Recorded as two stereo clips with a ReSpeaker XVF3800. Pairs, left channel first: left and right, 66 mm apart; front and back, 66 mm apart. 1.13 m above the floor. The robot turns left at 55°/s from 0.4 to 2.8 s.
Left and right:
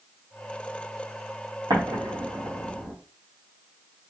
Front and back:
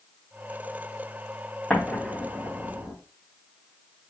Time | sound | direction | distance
1.7 | an explosion | 75° right | 1.3 m